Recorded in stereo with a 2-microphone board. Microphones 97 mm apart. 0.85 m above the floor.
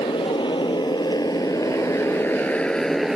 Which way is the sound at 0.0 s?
60° left (ahead or behind).